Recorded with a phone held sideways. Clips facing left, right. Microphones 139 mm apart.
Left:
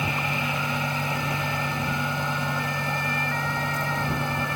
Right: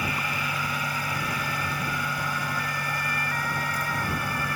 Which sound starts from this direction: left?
A fan, at 0.0 s.